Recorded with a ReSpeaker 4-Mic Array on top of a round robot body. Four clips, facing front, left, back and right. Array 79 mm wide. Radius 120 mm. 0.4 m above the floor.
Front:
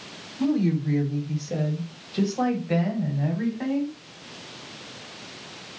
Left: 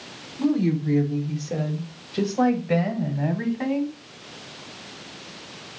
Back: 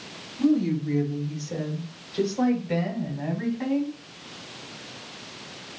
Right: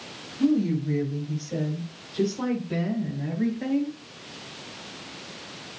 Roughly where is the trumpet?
I don't hear a trumpet.